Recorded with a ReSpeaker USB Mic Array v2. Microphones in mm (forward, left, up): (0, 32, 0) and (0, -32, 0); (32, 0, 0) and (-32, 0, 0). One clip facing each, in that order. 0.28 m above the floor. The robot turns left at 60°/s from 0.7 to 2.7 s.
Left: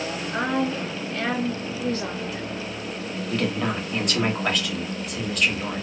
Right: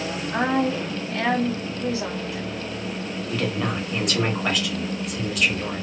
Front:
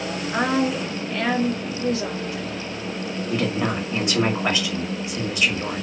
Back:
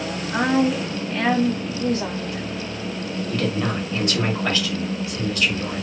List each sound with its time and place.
0.3 s a woman speaking: 85° right, 1.5 m; by 2.4 s 170° left, 1.5 m
3.3 s a woman speaking: 5° right, 1.0 m